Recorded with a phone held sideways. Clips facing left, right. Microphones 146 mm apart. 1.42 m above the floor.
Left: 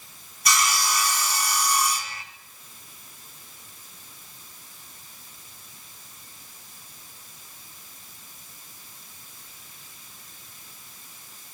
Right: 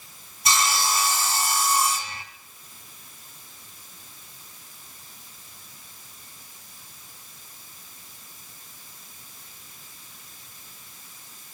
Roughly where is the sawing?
Right.